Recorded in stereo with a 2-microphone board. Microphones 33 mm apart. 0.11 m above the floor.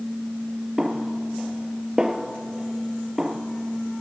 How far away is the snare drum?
About 1.4 m.